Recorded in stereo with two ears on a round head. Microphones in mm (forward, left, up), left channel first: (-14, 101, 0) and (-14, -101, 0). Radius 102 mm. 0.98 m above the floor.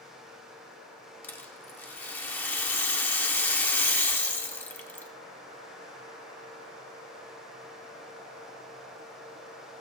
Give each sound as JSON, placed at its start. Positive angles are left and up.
{"t": 1.2, "sound": "a rattle", "side_deg": 10, "distance_m": 0.8}